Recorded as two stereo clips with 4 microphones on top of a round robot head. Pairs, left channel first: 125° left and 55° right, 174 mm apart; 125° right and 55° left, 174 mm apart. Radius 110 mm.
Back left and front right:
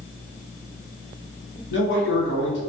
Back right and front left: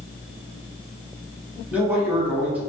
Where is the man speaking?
135° left, 1.0 m.